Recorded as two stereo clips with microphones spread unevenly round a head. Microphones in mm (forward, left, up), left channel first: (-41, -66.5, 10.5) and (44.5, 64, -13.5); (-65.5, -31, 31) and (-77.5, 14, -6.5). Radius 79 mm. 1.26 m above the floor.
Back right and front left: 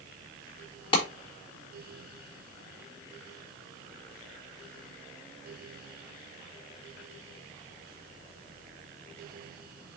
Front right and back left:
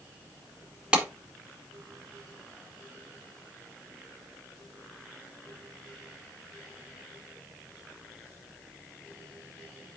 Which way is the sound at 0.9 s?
175° left.